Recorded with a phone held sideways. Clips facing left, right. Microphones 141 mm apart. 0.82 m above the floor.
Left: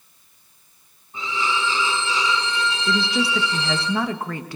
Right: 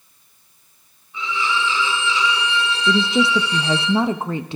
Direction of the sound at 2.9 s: 20° right (ahead or behind).